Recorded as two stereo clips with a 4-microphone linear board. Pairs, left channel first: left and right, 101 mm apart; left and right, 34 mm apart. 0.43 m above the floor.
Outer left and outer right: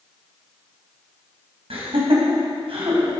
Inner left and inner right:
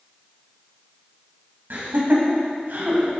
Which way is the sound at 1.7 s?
65° right (ahead or behind).